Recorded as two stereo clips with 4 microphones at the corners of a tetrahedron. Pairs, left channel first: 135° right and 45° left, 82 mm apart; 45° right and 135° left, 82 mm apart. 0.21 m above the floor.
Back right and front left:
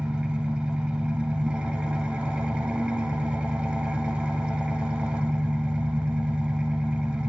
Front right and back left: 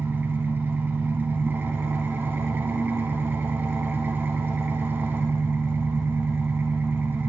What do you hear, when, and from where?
0.0 s an engine running: 105° left, 0.7 m